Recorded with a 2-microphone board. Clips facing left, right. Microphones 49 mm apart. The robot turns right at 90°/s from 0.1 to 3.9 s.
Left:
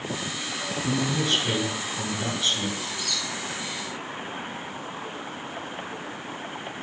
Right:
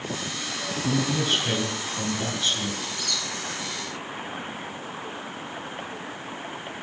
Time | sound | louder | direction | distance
0.8 | a man speaking | right 1 dB | 130° right | 1.7 m
2.8 | a squeak | even | 5° right (ahead or behind) | 3 m